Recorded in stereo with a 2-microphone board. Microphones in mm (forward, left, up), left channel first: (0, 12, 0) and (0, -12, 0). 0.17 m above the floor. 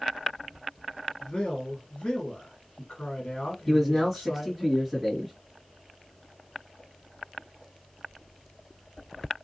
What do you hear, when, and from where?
1.2 s a man speaking: 45° left (ahead or behind), 1.8 m
3.7 s a man speaking: 5° left (ahead or behind), 1.4 m